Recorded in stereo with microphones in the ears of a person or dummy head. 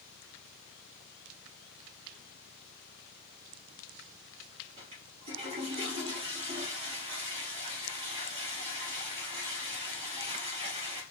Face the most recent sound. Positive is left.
turn(degrees=-30)  # may be behind; listen again after turning